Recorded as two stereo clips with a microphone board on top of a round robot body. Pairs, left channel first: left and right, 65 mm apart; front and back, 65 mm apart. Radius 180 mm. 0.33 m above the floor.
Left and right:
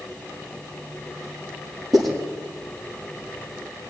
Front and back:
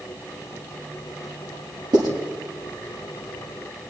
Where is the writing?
175° left, 8 m.